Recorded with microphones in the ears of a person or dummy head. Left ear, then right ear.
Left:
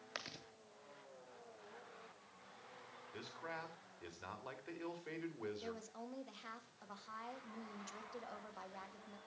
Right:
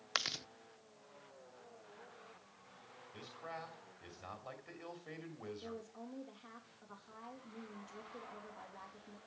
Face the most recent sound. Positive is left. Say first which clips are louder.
# even
turn(degrees=75)  # may be behind; listen again after turning